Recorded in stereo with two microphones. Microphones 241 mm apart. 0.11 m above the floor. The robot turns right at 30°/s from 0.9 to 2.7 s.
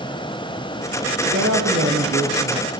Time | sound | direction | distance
1.2 | a man speaking | 90° right | 2.5 m